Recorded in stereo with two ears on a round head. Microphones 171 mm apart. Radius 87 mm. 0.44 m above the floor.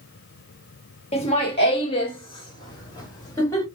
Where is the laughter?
35° left (ahead or behind), 1.2 m; by 3.7 s 15° left (ahead or behind), 2 m.